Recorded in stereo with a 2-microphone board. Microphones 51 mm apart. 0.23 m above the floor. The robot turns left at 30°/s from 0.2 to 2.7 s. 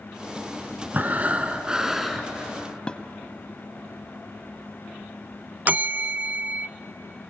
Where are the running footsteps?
No running footsteps in this recording.